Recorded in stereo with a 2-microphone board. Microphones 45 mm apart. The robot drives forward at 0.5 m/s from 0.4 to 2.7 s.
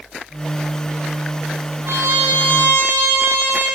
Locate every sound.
1.9 s a trumpet: 70° right (ahead or behind), 3 m; by 3.7 s 80° right, 3 m